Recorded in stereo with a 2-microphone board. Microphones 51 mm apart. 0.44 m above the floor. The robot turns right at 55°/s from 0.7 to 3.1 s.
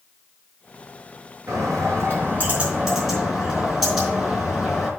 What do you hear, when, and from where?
1.5 s a bird: 85° right, 4.5 m; by 4.9 s 5° left, 4.5 m